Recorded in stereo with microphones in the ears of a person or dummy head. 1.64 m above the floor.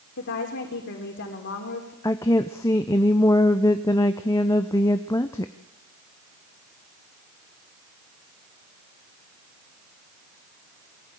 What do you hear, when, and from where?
0.2 s a woman speaking: 60° left (ahead or behind), 4.5 m
2.0 s a woman speaking: 15° left (ahead or behind), 0.8 m